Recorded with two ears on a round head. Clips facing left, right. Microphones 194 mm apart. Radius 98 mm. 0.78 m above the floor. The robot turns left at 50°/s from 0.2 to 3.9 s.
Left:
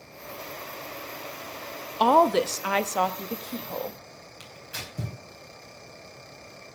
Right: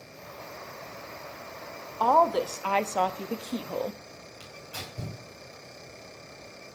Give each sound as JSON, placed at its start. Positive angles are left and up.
{"t": 2.0, "sound": "a woman speaking", "azimuth_deg": 55, "distance_m": 0.6}
{"t": 4.4, "sound": "tearing paper", "side_deg": 20, "distance_m": 4.5}